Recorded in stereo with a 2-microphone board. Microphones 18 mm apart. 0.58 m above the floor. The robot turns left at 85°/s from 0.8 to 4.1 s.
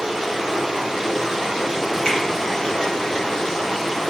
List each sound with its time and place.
0.0 s running water: 75° right, 1.9 m; by 4.1 s 5° left, 1.9 m
2.0 s a finger snap: 70° left (ahead or behind), 2.0 m; by 2.2 s 75° left (ahead or behind), 2.0 m